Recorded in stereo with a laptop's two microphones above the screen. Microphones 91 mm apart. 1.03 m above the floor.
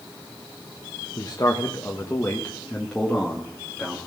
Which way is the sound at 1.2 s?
40° left (ahead or behind).